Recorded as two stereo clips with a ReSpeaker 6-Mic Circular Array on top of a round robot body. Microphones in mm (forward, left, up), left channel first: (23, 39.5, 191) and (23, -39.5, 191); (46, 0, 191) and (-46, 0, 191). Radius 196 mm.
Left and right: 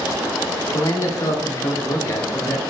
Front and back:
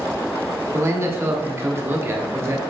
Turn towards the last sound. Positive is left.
turn(degrees=125)